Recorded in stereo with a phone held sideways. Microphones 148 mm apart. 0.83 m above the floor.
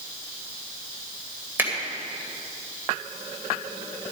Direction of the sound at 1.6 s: 15° right (ahead or behind).